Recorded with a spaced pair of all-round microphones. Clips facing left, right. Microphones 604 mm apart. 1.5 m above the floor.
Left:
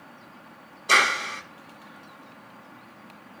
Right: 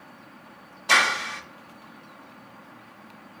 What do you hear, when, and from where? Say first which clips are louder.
0.9 s a clap: left 1 dB; 25° right (ahead or behind), 0.7 m